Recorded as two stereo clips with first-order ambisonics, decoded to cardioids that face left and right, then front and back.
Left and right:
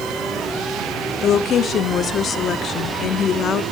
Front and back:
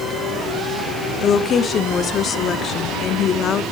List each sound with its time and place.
1.2 s a woman speaking: 45° left, 0.7 m